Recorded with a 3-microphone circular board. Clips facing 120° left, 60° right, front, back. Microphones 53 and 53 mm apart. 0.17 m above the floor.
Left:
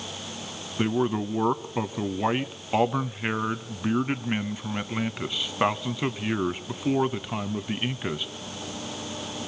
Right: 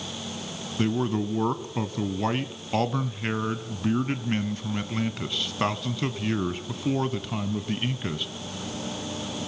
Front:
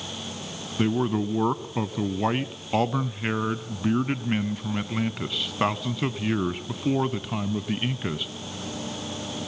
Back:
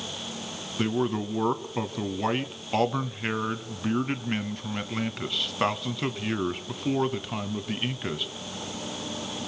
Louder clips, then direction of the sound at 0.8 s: Left 1 dB, front 3 dB; 75° left.